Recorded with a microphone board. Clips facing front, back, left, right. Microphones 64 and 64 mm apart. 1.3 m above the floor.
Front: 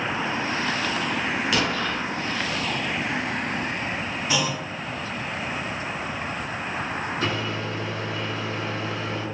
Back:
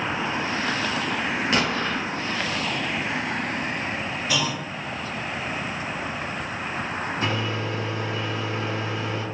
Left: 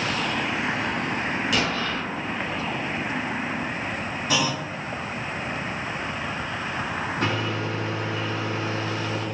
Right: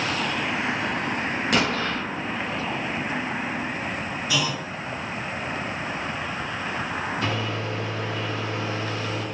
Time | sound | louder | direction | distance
1.5 | an explosion | back 1 dB, right 4 dB | 125° right | 0.7 m
4.3 | a clunk | front 1 dB, left 2 dB | 60° left | 1.0 m
7.2 | a microwave | back 1 dB, left 1 dB | 125° left | 1.4 m